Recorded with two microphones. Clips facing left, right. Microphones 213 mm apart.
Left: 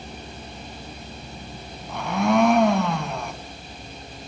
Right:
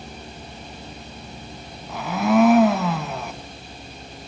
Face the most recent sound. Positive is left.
turn(degrees=-5)  # may be behind; listen again after turning